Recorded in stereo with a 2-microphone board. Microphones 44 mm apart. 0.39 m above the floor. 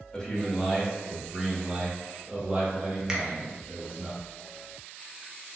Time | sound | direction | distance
0.1 | a man speaking | 20° left (ahead or behind) | 1.2 m
3.1 | a finger snap | 20° right (ahead or behind) | 0.7 m